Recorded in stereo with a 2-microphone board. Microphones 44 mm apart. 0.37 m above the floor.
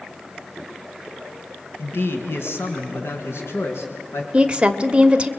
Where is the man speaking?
65° left (ahead or behind), 2.0 m; by 4.2 s 80° left, 5 m.